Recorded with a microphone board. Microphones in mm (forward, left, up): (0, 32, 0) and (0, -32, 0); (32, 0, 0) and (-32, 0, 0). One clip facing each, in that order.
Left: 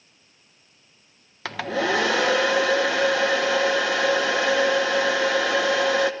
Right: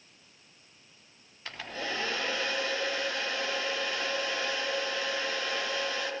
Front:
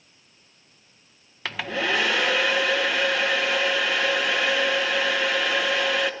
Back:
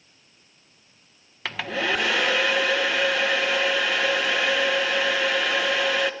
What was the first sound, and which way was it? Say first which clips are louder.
A hair dryer: left 13 dB, even; 90° left.